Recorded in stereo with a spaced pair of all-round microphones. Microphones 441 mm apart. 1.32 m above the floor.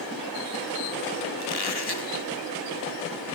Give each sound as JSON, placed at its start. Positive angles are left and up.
{"t": 1.4, "sound": "a squeak", "side_deg": 60, "distance_m": 1.8}